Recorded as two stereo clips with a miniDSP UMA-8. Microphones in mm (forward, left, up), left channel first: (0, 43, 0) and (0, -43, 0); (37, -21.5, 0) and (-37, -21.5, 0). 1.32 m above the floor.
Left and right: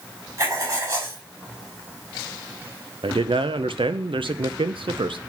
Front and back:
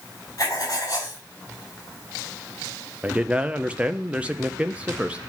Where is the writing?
40° right, 4 m.